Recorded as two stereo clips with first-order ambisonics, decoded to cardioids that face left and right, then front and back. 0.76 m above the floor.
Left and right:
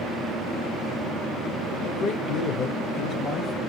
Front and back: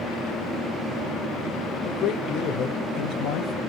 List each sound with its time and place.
1.8 s a man speaking: 70° left, 1.6 m; by 3.6 s 30° left, 1.8 m